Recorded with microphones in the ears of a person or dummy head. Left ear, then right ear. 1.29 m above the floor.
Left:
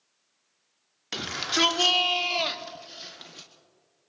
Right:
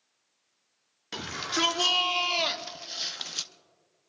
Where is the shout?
15° left (ahead or behind), 1.4 m; by 3.5 s 45° right (ahead or behind), 0.8 m.